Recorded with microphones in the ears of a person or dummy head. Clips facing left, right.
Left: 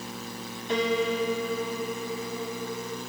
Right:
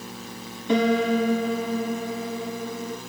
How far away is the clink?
No clink in this recording.